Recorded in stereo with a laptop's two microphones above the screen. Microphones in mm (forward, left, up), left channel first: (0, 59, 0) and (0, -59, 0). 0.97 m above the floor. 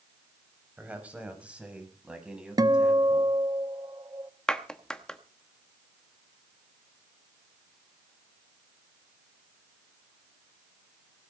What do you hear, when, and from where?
0.8 s a man speaking: 10° right (ahead or behind), 6 m; by 3.4 s 5° right (ahead or behind), 9 m
2.6 s a guitar: 35° right (ahead or behind), 0.6 m
4.5 s a clap: 5° left (ahead or behind), 0.9 m